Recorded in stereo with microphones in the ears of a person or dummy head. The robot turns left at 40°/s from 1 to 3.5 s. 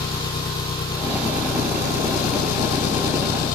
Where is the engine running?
165° left; by 3.5 s 65° left.